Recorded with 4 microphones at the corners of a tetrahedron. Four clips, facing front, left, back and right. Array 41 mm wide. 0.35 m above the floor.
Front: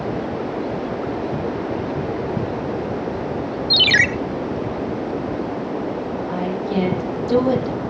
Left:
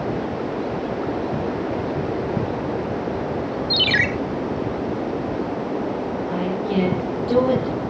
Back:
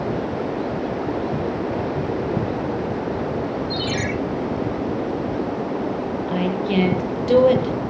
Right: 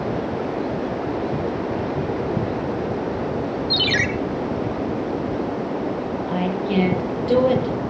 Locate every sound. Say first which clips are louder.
3.7 s a ringtone: left 2 dB, front 15 dB; 10° left, 1.8 m
6.3 s a woman speaking: right 2 dB, back 2 dB; 165° right, 8 m